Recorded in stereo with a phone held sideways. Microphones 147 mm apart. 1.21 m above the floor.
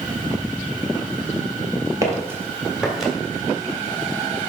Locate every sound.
2.0 s footsteps: 20° right (ahead or behind), 1.5 m; by 3.1 s centre (ahead or behind), 1.7 m